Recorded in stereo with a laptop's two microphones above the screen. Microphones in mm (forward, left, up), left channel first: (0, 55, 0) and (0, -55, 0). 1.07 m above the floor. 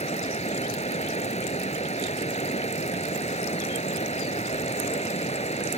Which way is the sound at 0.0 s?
80° left.